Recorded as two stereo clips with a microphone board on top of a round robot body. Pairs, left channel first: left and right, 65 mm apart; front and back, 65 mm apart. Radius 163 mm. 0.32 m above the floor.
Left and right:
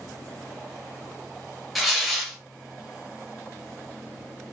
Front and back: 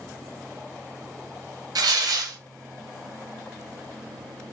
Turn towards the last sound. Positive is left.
turn(degrees=180)